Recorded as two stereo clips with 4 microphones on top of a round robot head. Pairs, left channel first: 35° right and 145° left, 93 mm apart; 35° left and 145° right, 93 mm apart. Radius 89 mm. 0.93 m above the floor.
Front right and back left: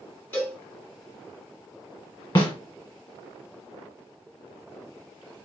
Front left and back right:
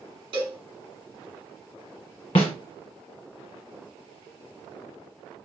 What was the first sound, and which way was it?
A cowbell, 110° right.